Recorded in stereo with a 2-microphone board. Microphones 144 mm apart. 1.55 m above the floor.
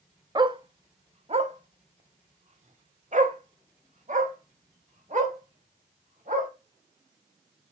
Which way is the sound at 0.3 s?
30° right (ahead or behind).